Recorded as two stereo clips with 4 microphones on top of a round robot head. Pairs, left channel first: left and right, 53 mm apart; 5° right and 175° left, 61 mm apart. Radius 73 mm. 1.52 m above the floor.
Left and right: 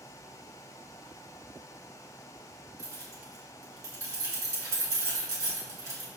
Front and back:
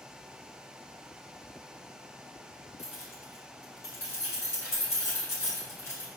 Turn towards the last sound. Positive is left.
turn(degrees=-60)